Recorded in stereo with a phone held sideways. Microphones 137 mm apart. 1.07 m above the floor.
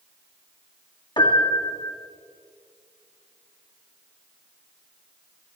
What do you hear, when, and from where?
1.2 s a piano: 35° left (ahead or behind), 2 m